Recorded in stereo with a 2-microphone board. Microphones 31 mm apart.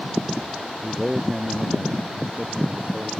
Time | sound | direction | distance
0.8 | a man speaking | 10° right (ahead or behind) | ?